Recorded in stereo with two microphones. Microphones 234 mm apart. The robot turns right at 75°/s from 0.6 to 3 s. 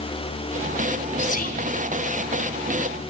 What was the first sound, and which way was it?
Whispering, 40° left.